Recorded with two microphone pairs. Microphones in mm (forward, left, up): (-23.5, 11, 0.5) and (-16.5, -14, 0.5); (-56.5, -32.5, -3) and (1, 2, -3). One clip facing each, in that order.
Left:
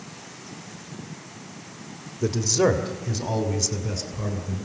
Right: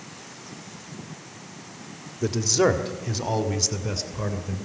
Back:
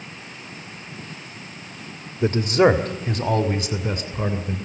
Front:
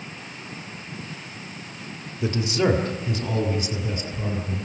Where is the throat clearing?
No throat clearing in this recording.